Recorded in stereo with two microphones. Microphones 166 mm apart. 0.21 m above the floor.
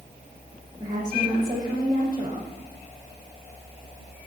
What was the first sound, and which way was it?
A woman speaking, 25° right (ahead or behind).